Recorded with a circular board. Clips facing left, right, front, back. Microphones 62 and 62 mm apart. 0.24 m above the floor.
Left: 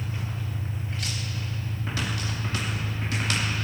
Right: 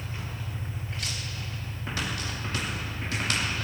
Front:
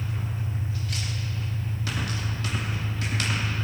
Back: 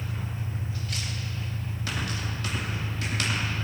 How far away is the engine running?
About 4 m.